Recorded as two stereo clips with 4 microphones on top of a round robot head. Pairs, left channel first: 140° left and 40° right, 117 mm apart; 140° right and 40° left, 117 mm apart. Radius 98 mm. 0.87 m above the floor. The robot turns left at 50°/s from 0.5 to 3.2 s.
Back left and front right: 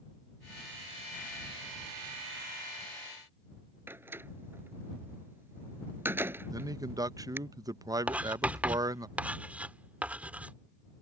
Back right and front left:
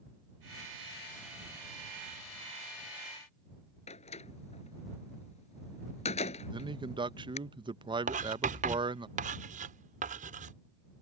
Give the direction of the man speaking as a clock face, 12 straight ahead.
12 o'clock.